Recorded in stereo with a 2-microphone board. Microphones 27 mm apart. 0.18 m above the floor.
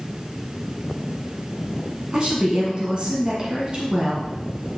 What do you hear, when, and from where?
2.1 s a woman speaking: 40° right (ahead or behind), 1.6 m